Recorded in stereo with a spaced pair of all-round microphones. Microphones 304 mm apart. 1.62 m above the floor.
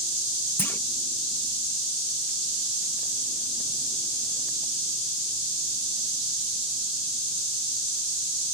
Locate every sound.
0.6 s a clunk: 5° left (ahead or behind)